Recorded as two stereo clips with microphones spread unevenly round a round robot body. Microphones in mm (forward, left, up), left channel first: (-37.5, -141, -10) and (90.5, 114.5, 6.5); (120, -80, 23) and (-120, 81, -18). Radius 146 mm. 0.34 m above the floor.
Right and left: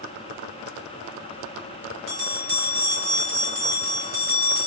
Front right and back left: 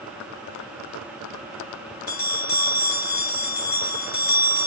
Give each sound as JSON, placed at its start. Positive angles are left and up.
{"t": 2.1, "sound": "a bell", "azimuth_deg": 25, "distance_m": 3.0}